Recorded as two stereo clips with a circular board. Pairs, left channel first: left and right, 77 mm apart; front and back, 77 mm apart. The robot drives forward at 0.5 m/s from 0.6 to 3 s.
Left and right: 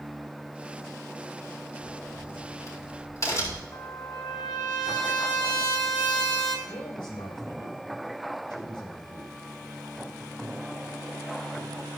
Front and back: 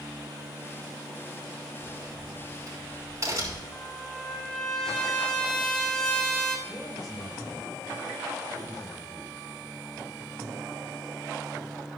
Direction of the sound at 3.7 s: 80° left.